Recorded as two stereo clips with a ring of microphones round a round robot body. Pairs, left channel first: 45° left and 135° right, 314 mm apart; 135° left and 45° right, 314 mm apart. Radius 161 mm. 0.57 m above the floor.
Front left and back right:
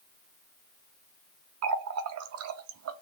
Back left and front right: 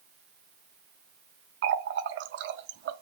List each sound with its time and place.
1.6 s a running tap: 95° right, 0.6 m